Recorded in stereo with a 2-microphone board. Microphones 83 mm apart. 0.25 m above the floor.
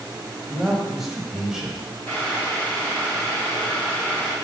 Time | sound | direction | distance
0.5 | a man speaking | 5° right (ahead or behind) | 1.0 m
2.1 | boiling | 35° left (ahead or behind) | 1.9 m